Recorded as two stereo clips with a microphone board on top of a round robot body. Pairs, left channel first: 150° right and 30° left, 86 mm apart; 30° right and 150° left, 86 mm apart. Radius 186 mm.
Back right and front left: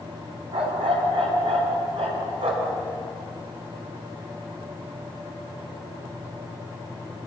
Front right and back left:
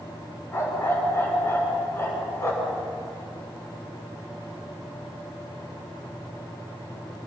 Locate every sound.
0.5 s a dog barking: 35° left, 3 m